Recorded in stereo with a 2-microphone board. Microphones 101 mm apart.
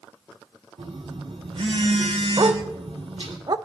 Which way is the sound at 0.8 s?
80° right.